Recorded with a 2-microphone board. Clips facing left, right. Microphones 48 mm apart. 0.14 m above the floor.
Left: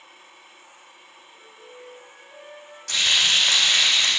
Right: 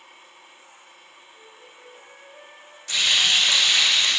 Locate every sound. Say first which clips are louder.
1.3 s a flute: left 4 dB; 20° left (ahead or behind), 6 m
2.9 s frying: even; 50° left (ahead or behind), 6 m